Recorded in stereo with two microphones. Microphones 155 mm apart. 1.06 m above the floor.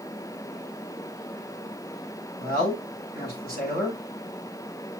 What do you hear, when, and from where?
2.4 s a man speaking: 80° left, 5.5 m